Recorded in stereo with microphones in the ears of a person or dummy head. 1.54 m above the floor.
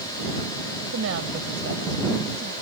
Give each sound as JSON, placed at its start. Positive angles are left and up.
{"t": 0.8, "sound": "a woman speaking", "side_deg": -70}